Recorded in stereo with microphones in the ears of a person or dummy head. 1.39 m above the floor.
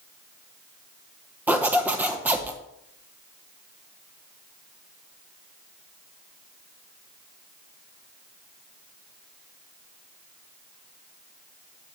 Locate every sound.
1.5 s a zipper: 5° right (ahead or behind), 0.6 m